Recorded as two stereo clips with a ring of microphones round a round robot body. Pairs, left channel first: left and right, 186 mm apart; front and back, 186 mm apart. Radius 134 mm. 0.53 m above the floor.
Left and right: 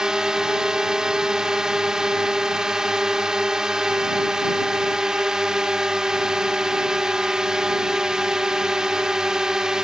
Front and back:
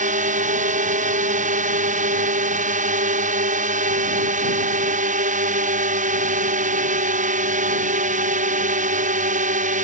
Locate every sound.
0.0 s a drone: 175° right